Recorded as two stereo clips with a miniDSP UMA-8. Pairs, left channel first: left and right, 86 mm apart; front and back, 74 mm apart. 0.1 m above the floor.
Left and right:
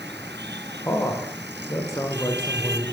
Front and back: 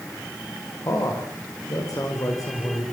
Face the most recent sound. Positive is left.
turn(degrees=35)